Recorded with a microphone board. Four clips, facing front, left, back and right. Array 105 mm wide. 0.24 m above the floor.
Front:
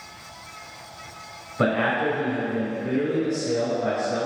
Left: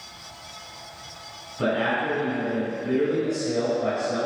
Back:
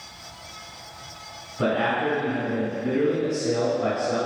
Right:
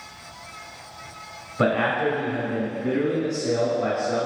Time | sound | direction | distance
1.6 | a man speaking | 50° right | 1.6 m